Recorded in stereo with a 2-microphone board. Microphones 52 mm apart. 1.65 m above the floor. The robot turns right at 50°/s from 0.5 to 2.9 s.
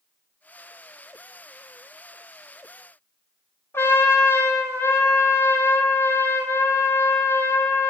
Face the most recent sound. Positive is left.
turn(degrees=55)  # may be behind; listen again after turning